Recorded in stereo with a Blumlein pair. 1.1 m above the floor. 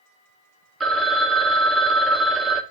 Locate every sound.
0.8 s a phone ringing: 15° right, 0.6 m